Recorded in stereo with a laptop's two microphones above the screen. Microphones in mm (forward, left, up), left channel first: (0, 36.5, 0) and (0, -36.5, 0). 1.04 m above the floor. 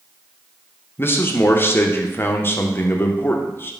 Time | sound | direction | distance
1.0 | a man speaking | 30° left (ahead or behind) | 0.5 m